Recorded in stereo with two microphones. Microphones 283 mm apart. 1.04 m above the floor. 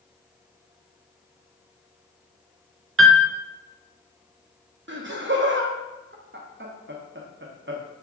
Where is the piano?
50° right (ahead or behind), 0.5 m.